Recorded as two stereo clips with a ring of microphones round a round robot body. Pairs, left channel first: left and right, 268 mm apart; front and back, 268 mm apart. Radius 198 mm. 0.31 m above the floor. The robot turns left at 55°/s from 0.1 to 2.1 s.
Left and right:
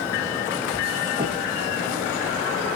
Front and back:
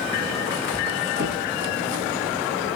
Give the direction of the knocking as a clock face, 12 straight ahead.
1 o'clock.